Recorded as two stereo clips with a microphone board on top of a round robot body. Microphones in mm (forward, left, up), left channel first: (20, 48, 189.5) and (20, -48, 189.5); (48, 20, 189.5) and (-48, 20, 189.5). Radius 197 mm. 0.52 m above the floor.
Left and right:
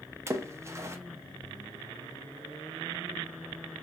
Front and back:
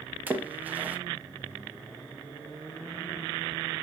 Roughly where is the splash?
Behind right.